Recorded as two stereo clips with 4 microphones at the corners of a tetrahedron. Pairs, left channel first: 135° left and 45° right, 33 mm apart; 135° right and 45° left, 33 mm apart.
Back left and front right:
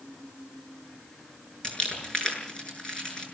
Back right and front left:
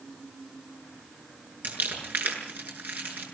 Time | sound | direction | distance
1.6 | crumpling | 70° left | 7 m